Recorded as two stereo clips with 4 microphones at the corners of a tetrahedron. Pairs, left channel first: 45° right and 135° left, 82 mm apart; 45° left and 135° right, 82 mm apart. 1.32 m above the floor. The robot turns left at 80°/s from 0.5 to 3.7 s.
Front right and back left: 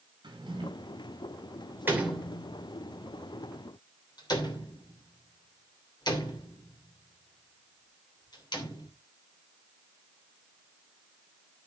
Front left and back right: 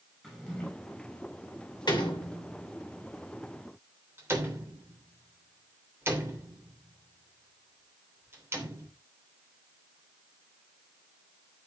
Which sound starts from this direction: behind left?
A drawer, at 0.2 s.